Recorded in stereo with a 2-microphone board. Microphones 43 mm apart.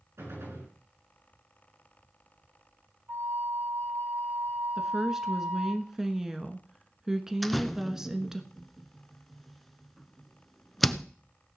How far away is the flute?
About 3.5 m.